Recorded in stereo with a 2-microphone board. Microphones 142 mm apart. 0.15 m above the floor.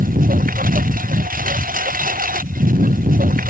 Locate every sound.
0.0 s a lawn mower: 75° right (ahead or behind)